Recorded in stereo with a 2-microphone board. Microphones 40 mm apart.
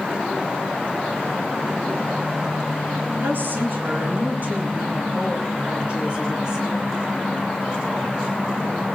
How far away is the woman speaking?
About 3 m.